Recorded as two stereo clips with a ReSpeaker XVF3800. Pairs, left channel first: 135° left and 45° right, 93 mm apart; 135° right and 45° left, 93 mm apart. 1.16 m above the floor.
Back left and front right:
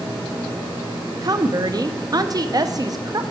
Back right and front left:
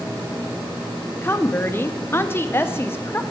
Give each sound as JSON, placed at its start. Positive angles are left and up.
{"t": 1.2, "sound": "a woman speaking", "azimuth_deg": -80, "distance_m": 0.6}